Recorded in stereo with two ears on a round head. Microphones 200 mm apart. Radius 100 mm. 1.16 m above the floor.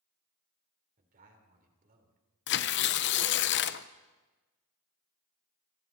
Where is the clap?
I don't hear a clap.